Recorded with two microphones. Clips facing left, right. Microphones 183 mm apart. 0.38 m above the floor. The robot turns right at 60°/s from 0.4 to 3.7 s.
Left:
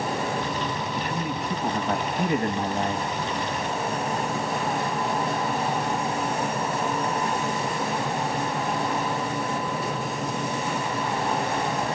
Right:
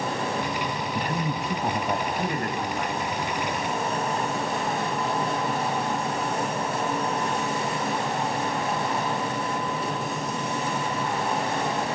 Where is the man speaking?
60° right, 2 m; by 3.0 s 65° left, 2 m.